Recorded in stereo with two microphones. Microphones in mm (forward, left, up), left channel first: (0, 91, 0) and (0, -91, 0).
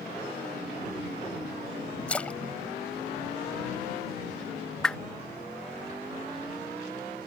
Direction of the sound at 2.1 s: 5° left (ahead or behind).